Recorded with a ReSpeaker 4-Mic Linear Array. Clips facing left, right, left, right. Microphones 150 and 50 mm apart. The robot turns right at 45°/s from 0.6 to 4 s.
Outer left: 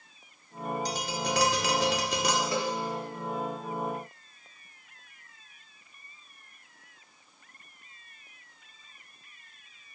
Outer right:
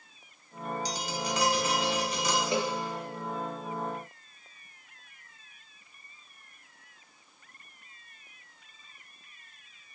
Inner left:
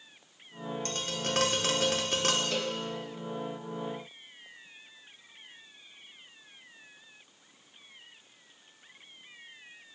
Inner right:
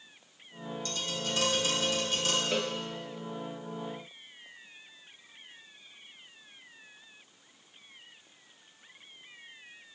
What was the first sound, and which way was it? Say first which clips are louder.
Tapping: outer left 2 dB, even; 50° left.